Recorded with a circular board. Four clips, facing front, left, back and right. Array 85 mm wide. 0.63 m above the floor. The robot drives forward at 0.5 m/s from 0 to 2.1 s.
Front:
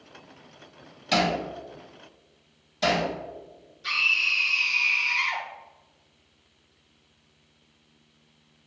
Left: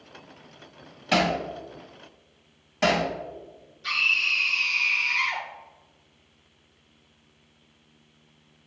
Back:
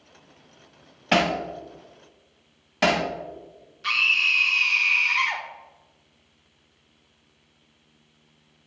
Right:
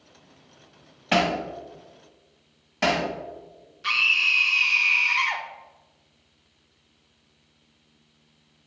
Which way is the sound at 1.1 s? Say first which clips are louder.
Right 1 dB, back 2 dB; 165° right.